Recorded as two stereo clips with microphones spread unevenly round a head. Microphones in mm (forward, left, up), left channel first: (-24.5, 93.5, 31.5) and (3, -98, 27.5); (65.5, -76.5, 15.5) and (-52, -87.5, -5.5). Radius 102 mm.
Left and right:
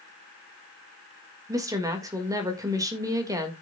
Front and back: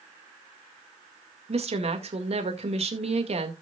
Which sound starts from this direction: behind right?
A woman speaking, at 1.5 s.